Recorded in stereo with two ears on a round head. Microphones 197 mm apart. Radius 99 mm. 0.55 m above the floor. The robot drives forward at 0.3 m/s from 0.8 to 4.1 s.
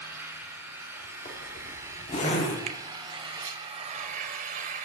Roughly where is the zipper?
Left.